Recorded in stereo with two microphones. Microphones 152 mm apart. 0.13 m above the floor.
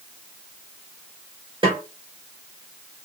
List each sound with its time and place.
1.6 s a snare drum: 30° right (ahead or behind), 3 m